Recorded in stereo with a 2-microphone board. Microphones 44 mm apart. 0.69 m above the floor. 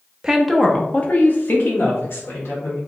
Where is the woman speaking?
15° right (ahead or behind), 0.7 m; by 2.8 s 70° left (ahead or behind), 1.8 m.